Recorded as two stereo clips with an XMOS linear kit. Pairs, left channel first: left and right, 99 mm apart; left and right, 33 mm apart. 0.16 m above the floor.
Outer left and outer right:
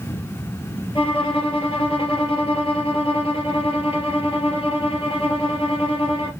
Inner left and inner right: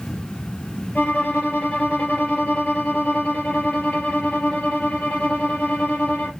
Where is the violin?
65° left (ahead or behind), 2.5 m.